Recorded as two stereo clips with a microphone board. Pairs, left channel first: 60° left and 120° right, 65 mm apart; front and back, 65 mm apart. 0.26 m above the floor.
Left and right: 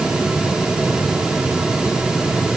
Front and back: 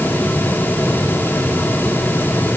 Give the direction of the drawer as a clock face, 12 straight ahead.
I don't hear a drawer.